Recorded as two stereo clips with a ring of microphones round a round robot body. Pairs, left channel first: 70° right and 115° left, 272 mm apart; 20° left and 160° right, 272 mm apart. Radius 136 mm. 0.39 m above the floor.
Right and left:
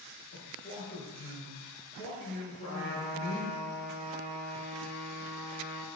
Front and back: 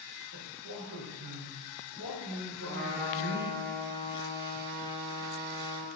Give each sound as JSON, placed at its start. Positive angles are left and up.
{"t": 0.3, "sound": "a man speaking", "azimuth_deg": -140, "distance_m": 5.5}
{"t": 2.6, "sound": "a trumpet", "azimuth_deg": 150, "distance_m": 3.5}